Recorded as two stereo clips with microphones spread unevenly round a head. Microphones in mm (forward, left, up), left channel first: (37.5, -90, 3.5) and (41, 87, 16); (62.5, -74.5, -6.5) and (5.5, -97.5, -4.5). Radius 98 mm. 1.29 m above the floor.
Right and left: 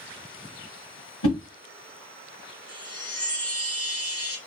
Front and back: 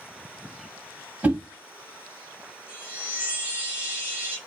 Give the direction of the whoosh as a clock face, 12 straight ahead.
3 o'clock.